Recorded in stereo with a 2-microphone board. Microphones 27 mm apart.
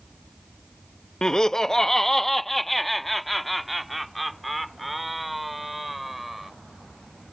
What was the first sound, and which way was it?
Laughter, 25° left (ahead or behind).